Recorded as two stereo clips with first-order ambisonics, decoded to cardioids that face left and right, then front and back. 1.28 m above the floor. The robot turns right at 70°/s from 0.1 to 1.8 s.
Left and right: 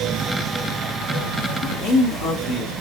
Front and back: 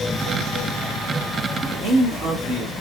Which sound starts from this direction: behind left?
A man speaking, at 1.6 s.